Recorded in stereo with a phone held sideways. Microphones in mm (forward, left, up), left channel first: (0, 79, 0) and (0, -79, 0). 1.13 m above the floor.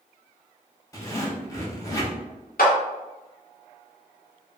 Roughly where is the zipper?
Left.